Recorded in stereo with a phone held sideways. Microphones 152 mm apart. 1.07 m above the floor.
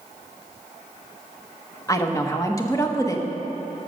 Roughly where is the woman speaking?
Left.